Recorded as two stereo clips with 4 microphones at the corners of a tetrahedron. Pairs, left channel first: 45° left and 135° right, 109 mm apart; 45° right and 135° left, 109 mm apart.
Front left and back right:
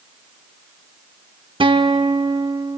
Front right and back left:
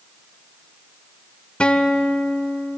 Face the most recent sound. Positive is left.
turn(degrees=-120)